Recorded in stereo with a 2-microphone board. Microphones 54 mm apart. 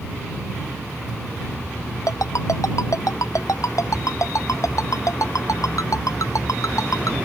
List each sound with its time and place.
2.1 s a ringtone: 75° left (ahead or behind)